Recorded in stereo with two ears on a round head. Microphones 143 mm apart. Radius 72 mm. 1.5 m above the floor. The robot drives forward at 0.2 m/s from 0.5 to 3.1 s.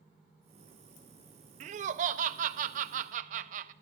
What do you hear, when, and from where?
1.6 s laughter: 45° right (ahead or behind), 0.6 m; by 3.7 s 50° right (ahead or behind), 0.5 m